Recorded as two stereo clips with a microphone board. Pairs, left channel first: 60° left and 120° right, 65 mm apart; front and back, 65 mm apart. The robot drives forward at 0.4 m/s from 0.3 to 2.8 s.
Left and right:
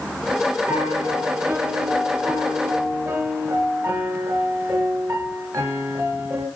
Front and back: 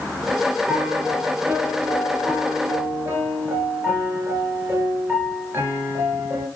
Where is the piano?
110° right, 2 m; by 6.5 s 130° right, 2.5 m.